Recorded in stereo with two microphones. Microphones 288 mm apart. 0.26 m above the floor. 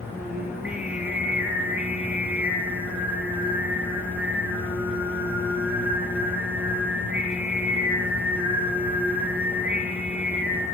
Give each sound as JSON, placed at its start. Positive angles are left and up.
{"t": 0.1, "sound": "singing", "side_deg": -5, "distance_m": 3.5}